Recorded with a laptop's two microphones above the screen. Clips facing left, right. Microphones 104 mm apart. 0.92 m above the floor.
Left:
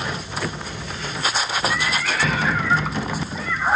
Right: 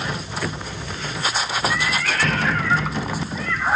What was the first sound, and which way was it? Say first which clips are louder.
A cat meowing: even; 5° left (ahead or behind).